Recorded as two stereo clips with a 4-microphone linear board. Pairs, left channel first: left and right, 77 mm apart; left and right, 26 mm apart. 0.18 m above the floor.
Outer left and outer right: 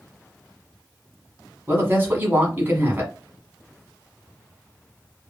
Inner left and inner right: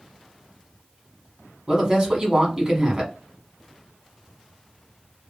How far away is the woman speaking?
About 1.2 m.